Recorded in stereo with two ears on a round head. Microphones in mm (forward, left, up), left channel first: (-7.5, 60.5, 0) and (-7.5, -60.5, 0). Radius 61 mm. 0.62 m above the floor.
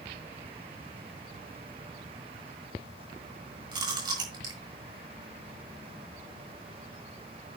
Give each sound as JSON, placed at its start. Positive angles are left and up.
{"t": 3.7, "sound": "chewing", "side_deg": -30, "distance_m": 6.5}